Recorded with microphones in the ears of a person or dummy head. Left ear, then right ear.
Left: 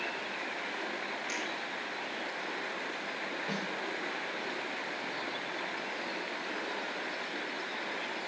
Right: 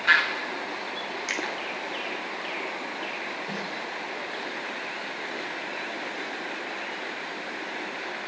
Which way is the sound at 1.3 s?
60° right (ahead or behind).